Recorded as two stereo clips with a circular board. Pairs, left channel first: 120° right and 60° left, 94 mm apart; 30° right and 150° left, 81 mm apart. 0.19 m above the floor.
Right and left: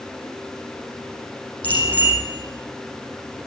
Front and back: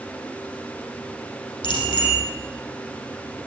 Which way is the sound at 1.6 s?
45° right.